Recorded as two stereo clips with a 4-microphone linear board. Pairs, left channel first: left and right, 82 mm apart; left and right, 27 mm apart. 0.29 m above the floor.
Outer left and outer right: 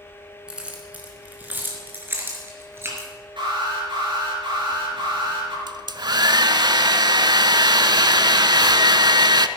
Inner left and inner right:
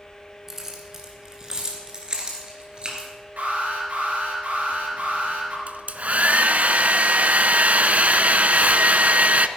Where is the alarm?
75° right (ahead or behind), 5 m.